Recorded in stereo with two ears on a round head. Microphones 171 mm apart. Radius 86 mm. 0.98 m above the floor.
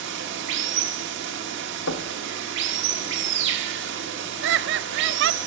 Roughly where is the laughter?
Right.